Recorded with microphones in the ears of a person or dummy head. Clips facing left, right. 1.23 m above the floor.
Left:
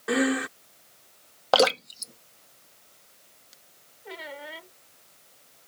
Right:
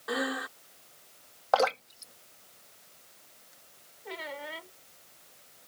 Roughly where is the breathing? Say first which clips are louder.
Left 9 dB; left.